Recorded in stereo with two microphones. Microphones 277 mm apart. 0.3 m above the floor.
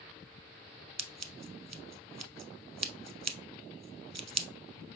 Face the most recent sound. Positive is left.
turn(degrees=-70)  # may be behind; listen again after turning